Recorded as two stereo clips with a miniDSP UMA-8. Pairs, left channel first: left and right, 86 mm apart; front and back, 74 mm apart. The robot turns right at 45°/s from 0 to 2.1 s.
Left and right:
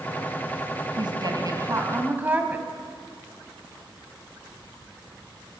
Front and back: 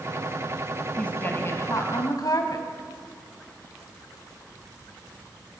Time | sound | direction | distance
1.0 | a woman speaking | 75° right | 3 m